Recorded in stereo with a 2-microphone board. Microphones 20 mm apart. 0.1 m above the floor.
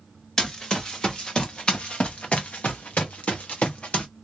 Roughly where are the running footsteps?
Left.